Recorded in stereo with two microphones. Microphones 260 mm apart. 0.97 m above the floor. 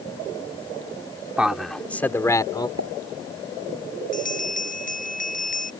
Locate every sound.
1.4 s a man speaking: 5° right (ahead or behind); by 2.7 s 15° left (ahead or behind)
2.8 s a pop: 70° right (ahead or behind)
4.1 s a bell: 30° left (ahead or behind)